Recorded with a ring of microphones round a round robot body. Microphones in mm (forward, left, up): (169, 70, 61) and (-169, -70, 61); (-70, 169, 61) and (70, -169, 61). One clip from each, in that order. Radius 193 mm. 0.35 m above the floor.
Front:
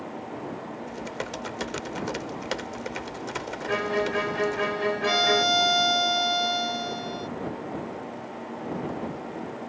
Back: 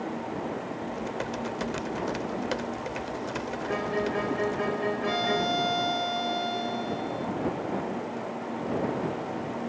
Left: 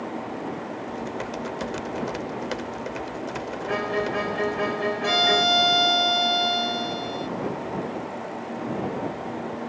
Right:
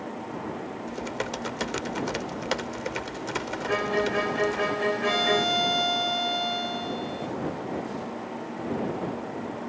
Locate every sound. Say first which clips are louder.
0.9 s typing on a keyboard: even, right 2 dB; 20° right
3.7 s a violin: front 4 dB, even; 10° left
5.0 s a violin: front 7 dB, left 6 dB; 50° left